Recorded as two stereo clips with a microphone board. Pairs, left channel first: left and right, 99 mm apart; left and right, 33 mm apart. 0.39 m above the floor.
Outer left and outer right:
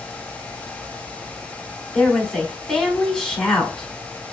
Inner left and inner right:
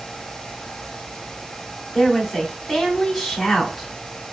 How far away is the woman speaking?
About 0.9 m.